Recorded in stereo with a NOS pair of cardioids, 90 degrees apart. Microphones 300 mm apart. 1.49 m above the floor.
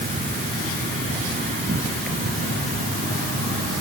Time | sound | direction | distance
0.0 | an insect | 25° right | ?